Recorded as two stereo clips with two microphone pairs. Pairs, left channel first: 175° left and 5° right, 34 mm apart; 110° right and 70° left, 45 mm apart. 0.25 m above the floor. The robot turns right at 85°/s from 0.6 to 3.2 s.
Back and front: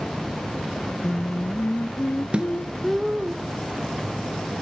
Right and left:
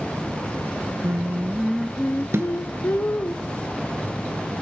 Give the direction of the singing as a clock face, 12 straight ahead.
9 o'clock.